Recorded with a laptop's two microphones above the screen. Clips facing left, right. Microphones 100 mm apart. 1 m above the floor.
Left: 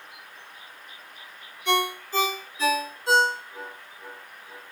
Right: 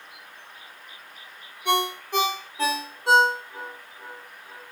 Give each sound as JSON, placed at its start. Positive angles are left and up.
{"t": 1.6, "sound": "a ringtone", "side_deg": -60, "distance_m": 1.3}